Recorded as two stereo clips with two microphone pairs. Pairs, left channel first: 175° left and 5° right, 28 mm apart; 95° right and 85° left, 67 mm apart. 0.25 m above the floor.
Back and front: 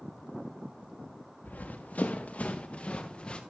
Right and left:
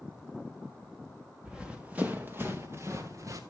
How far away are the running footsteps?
About 1.6 m.